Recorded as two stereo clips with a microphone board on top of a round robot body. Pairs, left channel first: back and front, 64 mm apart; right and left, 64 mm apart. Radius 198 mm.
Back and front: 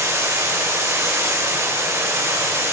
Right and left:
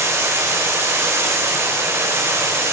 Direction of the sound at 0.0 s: 45° left.